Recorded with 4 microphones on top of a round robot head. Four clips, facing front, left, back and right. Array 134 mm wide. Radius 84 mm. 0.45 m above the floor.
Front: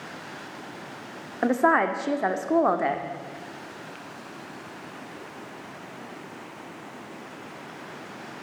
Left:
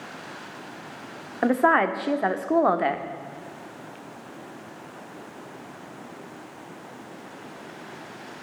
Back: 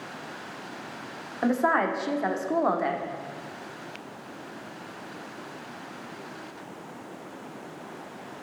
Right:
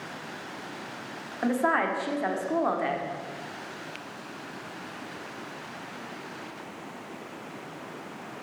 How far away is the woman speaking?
About 1.1 m.